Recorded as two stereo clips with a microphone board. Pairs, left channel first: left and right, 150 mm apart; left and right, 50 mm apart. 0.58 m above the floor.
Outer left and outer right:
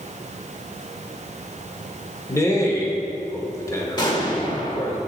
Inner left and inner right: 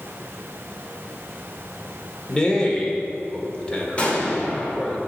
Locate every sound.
2.3 s a man speaking: 20° left (ahead or behind), 1.6 m
4.0 s an explosion: 30° left (ahead or behind), 2 m